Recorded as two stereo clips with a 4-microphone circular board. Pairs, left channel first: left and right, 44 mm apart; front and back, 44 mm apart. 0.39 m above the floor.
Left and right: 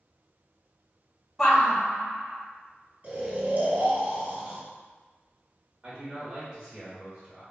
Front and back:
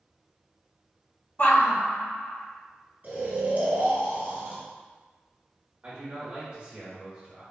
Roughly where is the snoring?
Behind right.